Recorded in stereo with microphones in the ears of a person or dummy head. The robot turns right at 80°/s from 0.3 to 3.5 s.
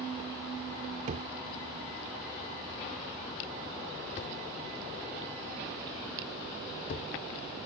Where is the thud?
40° right (ahead or behind); by 7.1 s 50° left (ahead or behind).